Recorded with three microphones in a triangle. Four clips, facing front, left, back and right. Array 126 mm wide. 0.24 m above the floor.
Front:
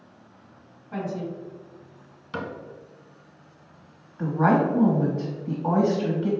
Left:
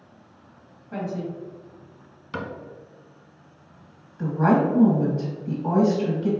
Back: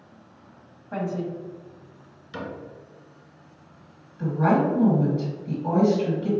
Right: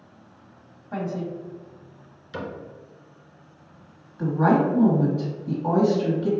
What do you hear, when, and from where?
0.9 s a woman speaking: 145° right, 1.5 m
2.3 s a cupboard door: 60° left, 1.1 m
4.2 s a woman speaking: 20° right, 1.1 m